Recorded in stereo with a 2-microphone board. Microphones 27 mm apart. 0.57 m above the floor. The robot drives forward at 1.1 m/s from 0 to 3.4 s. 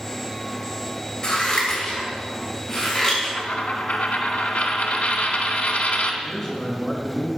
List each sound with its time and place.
1.2 s scissors: 30° left (ahead or behind), 3 m; by 3.2 s 15° left (ahead or behind), 5 m
3.4 s a dropped coin: 80° left, 1.4 m
6.2 s a man speaking: 10° left (ahead or behind), 4 m